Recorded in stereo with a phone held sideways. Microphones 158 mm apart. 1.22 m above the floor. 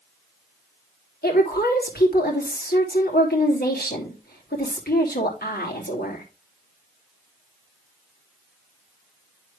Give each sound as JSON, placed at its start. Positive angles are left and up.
{"t": 1.2, "sound": "a woman speaking", "side_deg": 80, "distance_m": 3.0}